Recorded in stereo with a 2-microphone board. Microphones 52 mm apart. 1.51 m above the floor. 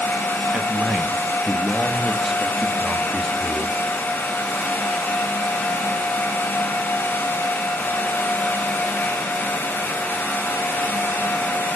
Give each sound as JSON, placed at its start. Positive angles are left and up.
{"t": 0.5, "sound": "a man speaking", "side_deg": -25, "distance_m": 1.6}